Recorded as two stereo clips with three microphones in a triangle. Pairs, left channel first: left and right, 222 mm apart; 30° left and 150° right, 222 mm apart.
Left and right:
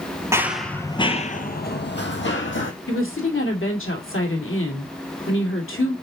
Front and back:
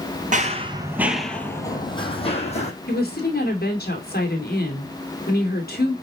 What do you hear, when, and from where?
0.3 s running footsteps: 160° right, 1.1 m; by 2.7 s 85° left, 2 m
2.9 s a woman speaking: 75° left, 2.5 m